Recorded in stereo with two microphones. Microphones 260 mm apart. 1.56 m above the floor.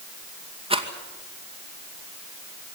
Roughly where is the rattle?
Right.